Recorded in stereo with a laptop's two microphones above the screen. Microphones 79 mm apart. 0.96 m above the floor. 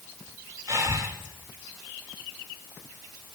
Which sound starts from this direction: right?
Breathing, at 0.7 s.